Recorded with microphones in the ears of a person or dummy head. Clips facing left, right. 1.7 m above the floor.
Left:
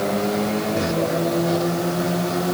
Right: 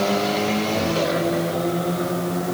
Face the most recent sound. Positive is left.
No sound to turn to.